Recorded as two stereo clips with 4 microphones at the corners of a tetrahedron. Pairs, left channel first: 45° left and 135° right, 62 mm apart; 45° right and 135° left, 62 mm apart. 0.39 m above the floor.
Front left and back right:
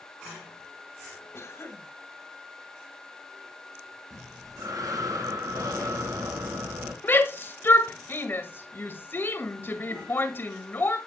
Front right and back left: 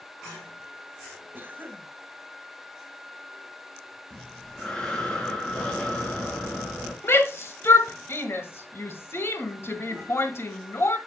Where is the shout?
5° right, 1.6 m.